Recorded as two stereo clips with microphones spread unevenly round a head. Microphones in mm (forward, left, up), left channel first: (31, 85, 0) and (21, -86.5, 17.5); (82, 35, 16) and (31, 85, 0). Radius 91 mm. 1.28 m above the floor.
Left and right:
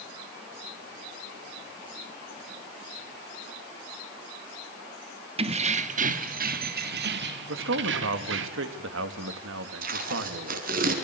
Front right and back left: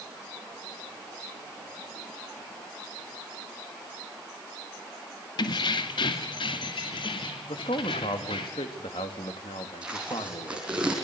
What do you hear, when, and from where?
5.4 s keys jangling: 35° right, 2 m; by 8.5 s 85° right, 3 m
7.5 s a man speaking: 85° right, 3 m
9.8 s tape being pulled: 140° right, 4.5 m